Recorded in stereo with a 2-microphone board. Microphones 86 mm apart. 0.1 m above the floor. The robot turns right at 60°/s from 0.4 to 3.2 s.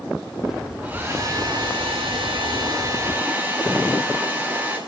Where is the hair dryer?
165° right, 4 m; by 4.8 s 20° right, 4 m.